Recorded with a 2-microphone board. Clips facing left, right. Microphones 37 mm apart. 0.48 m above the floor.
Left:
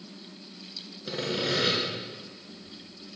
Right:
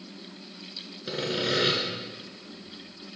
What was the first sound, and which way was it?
Sawing, 10° right (ahead or behind).